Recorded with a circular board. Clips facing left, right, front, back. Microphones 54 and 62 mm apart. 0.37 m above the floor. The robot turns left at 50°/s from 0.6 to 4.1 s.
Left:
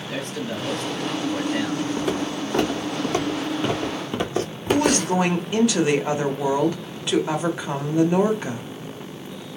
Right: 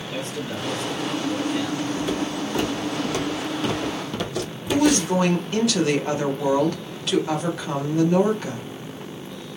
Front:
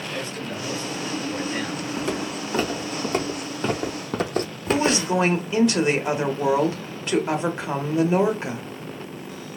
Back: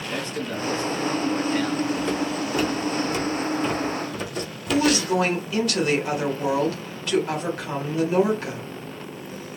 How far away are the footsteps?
About 1.9 m.